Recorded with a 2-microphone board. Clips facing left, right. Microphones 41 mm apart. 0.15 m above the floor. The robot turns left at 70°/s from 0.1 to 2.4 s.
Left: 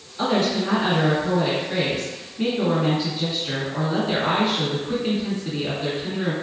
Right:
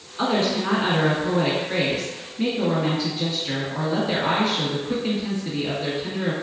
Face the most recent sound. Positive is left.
turn(degrees=160)